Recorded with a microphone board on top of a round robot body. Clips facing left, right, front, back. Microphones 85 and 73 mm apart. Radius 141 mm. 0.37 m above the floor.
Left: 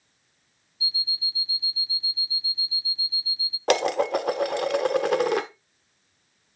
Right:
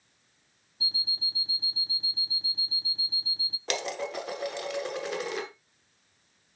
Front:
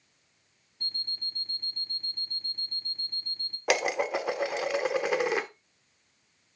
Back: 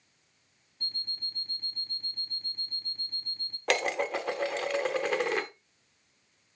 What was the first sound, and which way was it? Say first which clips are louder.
An alarm clock: left 2 dB, front 1 dB; 90° right.